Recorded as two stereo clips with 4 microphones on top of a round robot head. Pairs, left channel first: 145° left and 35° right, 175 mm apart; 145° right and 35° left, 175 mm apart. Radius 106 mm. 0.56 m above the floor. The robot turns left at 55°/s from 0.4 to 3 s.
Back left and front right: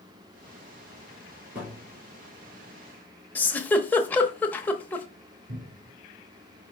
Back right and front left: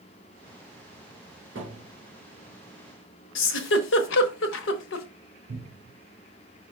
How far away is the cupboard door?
About 1.5 m.